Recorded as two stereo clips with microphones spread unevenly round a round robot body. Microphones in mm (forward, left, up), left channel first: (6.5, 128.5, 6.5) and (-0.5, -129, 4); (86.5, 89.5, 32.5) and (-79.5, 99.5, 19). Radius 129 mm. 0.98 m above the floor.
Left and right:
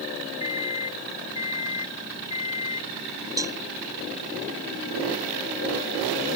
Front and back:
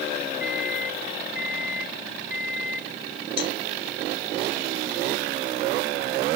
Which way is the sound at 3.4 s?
15° right.